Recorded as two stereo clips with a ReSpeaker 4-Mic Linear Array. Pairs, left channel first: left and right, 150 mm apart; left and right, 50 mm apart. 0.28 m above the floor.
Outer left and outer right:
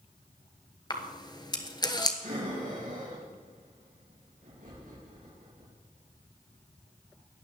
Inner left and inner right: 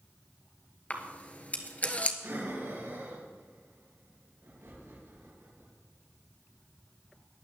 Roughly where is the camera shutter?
Left.